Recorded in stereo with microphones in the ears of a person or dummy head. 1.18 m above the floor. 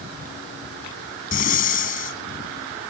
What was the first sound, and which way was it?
Breathing, 45° left (ahead or behind).